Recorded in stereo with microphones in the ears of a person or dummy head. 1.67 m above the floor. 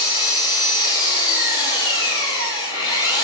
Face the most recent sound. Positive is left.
turn(degrees=30)  # may be behind; listen again after turning